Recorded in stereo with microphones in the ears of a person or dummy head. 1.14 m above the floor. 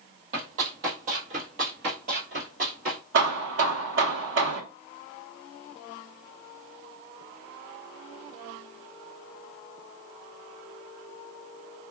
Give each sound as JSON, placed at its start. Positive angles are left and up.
{"t": 0.3, "sound": "running footsteps", "side_deg": -50, "distance_m": 1.9}
{"t": 3.1, "sound": "hammering", "side_deg": -60, "distance_m": 1.3}